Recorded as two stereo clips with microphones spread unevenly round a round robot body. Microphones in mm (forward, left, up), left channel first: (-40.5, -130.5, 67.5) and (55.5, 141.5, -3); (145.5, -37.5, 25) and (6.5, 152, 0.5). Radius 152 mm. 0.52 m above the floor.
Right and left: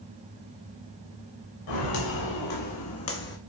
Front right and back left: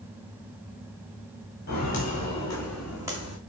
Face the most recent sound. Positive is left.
turn(degrees=-165)